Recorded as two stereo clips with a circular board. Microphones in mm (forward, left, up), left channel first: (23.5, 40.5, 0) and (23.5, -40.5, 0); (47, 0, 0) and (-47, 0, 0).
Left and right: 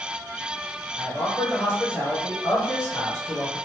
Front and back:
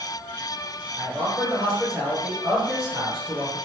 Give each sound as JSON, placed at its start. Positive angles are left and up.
{"t": 1.0, "sound": "a man speaking", "azimuth_deg": 95, "distance_m": 1.9}